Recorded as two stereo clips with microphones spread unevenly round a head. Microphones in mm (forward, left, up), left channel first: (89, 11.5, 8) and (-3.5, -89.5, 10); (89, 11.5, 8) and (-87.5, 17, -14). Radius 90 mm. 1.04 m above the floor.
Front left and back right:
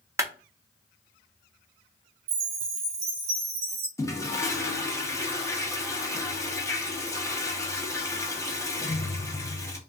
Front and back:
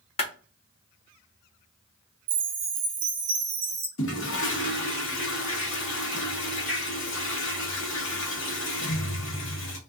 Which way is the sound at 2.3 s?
175° right.